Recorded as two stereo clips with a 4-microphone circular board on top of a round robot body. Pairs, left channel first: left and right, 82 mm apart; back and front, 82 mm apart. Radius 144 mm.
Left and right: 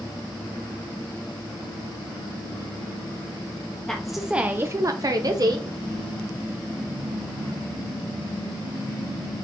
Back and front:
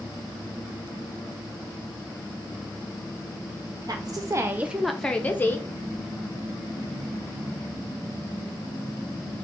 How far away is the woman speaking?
About 0.7 m.